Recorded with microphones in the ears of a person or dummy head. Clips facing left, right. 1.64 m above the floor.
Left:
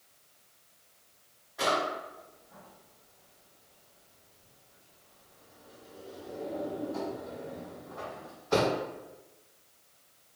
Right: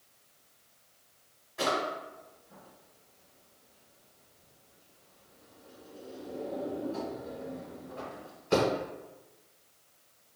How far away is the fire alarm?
I don't hear a fire alarm.